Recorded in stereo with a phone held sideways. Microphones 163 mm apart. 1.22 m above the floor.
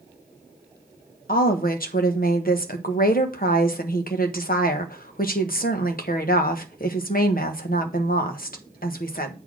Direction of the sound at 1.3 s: 65° left (ahead or behind).